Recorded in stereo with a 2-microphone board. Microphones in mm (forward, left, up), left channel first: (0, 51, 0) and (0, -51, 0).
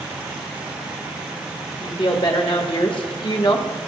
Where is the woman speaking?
60° left (ahead or behind), 2.5 m; by 3.7 s 50° left (ahead or behind), 1.5 m.